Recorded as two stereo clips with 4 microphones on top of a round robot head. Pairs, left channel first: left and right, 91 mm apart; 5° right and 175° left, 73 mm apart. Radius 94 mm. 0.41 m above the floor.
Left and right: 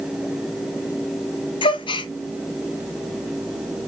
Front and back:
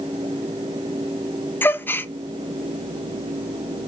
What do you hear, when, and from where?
1.6 s a gasp: 60° left, 0.5 m